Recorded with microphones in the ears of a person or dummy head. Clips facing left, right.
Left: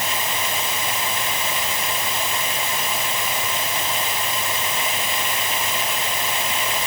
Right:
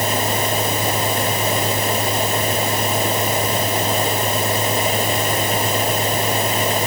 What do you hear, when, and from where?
0.0 s a fan: 35° right (ahead or behind)